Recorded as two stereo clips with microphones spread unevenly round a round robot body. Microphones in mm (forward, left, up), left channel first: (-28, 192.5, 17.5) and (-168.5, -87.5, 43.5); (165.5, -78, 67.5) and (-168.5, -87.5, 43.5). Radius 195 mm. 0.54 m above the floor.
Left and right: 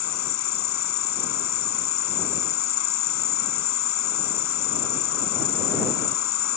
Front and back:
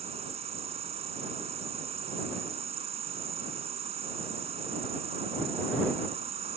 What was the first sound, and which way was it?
An insect, 105° left.